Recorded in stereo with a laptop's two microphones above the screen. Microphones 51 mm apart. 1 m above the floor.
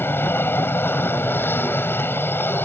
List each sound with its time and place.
0.0 s an aircraft: 45° left (ahead or behind)